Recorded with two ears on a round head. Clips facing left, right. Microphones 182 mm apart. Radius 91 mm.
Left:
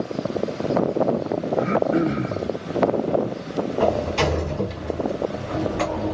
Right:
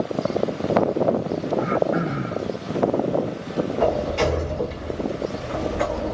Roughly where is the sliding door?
Left.